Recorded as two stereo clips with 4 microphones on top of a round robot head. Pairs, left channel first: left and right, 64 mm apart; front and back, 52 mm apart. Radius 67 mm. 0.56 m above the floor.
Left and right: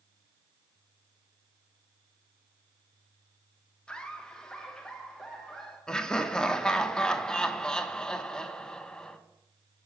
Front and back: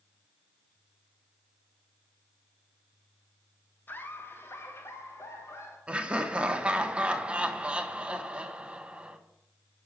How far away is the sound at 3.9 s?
About 1.4 m.